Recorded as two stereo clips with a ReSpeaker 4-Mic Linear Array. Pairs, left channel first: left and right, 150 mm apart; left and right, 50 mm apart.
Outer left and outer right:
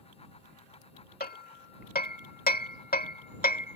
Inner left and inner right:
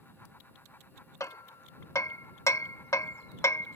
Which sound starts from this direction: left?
Hammering, at 1.2 s.